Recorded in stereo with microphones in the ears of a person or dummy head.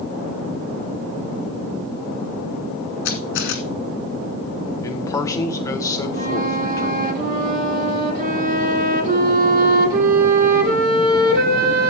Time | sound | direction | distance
3.0 | a camera shutter | 60° left (ahead or behind) | 2 m
4.8 | a man speaking | 15° left (ahead or behind) | 1.3 m
6.1 | a flute | 45° right (ahead or behind) | 2.0 m